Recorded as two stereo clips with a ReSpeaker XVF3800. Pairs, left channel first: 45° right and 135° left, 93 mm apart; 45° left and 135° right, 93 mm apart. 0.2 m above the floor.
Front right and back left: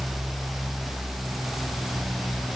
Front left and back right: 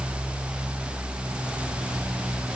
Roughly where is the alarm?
No alarm in this recording.